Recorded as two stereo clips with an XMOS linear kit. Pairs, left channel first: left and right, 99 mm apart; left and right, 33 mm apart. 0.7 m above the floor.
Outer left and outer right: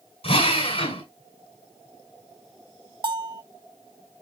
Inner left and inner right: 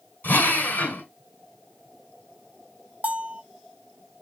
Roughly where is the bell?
Right.